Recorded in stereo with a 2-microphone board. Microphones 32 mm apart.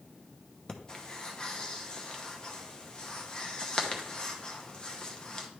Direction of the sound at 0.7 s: 20° left (ahead or behind).